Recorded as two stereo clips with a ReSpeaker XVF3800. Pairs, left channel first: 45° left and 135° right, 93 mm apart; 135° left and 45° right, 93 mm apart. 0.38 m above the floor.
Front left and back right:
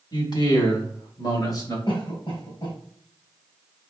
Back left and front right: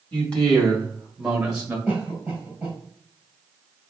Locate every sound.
0.1 s a man speaking: 60° left, 2 m; by 1.8 s 25° left, 1.7 m
1.9 s a cough: 30° left, 2.5 m